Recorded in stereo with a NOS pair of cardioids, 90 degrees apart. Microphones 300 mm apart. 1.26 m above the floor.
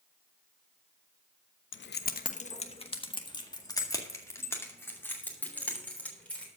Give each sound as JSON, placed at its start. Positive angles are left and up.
{"t": 1.7, "sound": "keys jangling", "azimuth_deg": 40, "distance_m": 0.7}